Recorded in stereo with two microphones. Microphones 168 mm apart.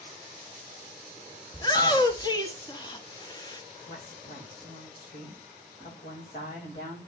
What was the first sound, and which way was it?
A shout, 25° left (ahead or behind).